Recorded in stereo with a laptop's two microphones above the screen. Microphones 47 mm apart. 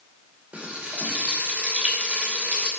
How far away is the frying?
About 2.5 m.